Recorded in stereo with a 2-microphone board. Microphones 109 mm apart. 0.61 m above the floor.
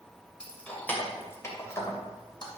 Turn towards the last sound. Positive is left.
turn(degrees=40)  # may be behind; listen again after turning